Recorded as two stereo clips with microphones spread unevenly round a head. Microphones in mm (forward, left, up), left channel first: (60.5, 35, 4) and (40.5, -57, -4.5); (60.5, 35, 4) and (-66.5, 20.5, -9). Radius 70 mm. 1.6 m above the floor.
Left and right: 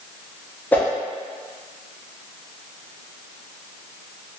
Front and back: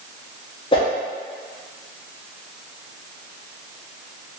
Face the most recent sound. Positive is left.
turn(degrees=20)